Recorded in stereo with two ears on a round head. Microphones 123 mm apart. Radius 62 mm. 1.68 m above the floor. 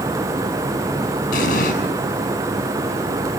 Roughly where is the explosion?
Left.